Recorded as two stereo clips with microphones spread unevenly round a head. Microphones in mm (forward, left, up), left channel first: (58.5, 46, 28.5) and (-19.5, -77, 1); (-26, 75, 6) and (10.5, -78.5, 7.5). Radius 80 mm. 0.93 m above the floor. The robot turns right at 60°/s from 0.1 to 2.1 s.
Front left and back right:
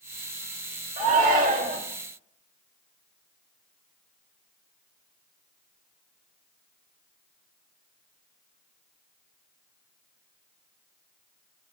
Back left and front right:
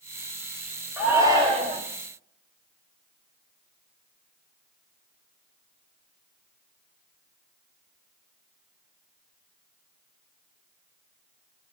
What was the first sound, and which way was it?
A shout, 160° right.